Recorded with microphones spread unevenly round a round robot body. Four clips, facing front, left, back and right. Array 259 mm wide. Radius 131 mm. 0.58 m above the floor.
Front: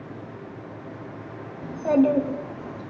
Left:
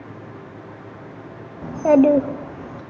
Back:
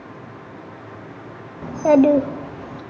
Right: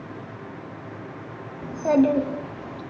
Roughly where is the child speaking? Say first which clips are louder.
Left 5 dB, back 6 dB; behind left.